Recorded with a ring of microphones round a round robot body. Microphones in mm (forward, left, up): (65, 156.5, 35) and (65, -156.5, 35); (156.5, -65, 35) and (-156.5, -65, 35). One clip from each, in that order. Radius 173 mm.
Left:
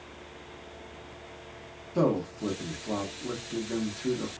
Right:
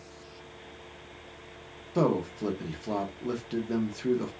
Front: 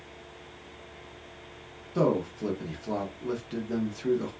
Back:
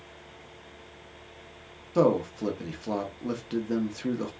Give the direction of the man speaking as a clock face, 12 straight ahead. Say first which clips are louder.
Even, back 3 dB; 5 o'clock.